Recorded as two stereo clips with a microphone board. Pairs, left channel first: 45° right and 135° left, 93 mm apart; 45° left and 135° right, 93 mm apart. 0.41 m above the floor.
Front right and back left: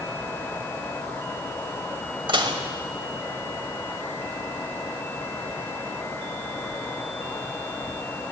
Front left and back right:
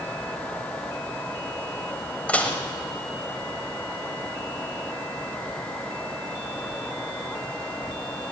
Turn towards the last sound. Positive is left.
turn(degrees=120)